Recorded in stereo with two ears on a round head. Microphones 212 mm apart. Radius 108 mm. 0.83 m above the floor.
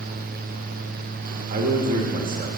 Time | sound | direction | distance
1.5 | a man speaking | 35° right (ahead or behind) | 1.5 m